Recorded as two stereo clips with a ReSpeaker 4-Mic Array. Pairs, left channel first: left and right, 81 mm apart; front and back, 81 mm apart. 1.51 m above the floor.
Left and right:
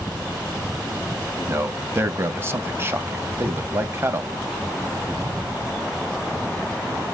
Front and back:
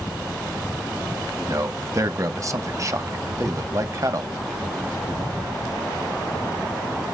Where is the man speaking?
140° right, 0.7 m.